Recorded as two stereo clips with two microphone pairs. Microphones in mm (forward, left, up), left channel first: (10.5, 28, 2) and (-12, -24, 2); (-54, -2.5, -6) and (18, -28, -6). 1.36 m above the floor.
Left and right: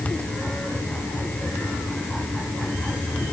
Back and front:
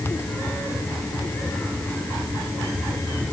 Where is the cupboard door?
I don't hear a cupboard door.